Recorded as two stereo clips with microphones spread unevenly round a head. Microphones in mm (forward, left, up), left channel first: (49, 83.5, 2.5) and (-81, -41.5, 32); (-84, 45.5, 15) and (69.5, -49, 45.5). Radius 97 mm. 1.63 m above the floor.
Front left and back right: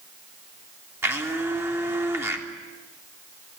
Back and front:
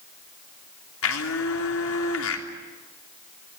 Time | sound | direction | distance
1.0 | a blender | 150° left | 3 m